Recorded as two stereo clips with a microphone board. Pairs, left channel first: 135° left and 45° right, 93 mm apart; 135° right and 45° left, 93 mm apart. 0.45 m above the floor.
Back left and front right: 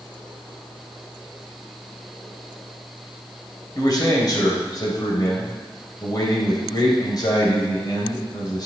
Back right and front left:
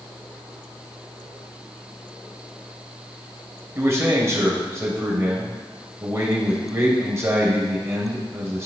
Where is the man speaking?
100° left, 2.5 m.